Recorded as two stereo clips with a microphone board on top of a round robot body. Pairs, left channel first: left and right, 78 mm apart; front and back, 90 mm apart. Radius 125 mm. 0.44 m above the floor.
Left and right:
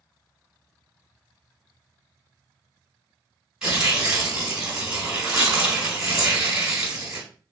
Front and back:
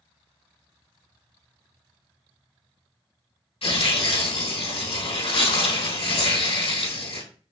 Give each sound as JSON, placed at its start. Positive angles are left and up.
{"t": 3.6, "sound": "tearing paper", "azimuth_deg": -5, "distance_m": 3.5}